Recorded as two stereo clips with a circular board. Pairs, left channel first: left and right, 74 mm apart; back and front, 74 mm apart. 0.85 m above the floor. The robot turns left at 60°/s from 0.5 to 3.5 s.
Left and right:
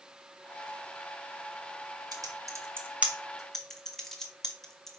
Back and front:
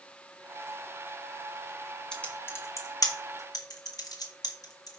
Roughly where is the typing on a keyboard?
Right.